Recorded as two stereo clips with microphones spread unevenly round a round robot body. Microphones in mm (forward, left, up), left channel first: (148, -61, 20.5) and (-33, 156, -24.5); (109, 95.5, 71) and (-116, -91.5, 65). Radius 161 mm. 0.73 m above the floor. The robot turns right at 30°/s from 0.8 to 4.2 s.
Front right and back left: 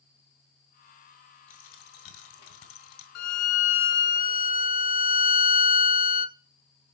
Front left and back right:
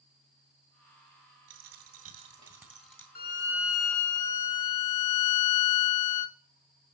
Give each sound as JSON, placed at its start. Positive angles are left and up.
{"t": 1.5, "sound": "a dropped coin", "azimuth_deg": -90, "distance_m": 2.5}
{"t": 3.1, "sound": "a violin", "azimuth_deg": -20, "distance_m": 0.8}